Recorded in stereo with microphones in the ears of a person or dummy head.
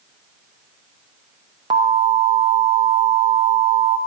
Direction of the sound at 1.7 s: 25° right (ahead or behind).